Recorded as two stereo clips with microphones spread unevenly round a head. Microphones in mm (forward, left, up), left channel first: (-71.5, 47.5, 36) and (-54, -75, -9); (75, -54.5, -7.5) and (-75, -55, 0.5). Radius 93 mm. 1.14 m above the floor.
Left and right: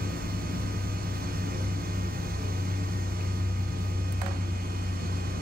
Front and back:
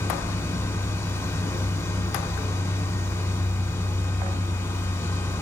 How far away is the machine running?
About 2 m.